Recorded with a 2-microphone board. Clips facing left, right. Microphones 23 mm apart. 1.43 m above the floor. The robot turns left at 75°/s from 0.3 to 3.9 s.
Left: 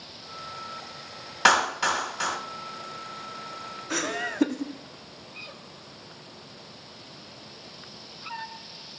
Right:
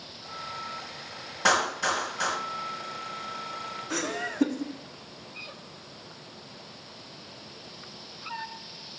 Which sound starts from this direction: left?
A clap, at 1.4 s.